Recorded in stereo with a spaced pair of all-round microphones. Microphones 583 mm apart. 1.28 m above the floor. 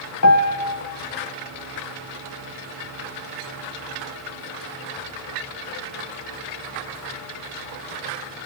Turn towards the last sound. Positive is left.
turn(degrees=30)  # may be behind; listen again after turning